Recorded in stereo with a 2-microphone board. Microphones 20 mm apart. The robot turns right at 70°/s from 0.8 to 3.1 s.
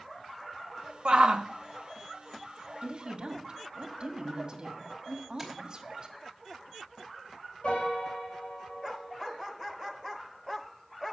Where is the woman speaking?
65° right (ahead or behind), 1.8 m; by 6.1 s 45° right (ahead or behind), 1.8 m.